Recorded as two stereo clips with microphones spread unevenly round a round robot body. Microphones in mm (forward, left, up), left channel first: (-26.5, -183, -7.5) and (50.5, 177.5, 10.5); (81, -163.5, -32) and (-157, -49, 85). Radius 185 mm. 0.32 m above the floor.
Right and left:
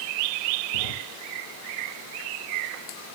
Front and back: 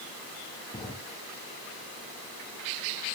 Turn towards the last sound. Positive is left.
turn(degrees=-105)